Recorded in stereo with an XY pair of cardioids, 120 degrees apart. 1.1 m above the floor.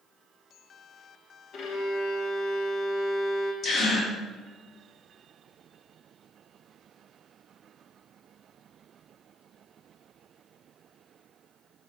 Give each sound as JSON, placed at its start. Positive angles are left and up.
{"t": 1.5, "sound": "a violin", "azimuth_deg": 65, "distance_m": 0.7}
{"t": 3.6, "sound": "a gasp", "azimuth_deg": 55, "distance_m": 1.5}